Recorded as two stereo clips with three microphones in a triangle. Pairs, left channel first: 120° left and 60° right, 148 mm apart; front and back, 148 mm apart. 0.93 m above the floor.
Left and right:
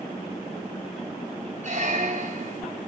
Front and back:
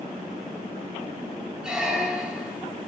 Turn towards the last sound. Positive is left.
turn(degrees=-95)